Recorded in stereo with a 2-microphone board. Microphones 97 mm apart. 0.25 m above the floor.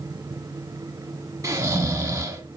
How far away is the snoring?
About 0.6 m.